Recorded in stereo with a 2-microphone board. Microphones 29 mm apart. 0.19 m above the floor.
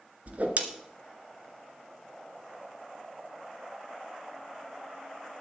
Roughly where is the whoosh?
Right.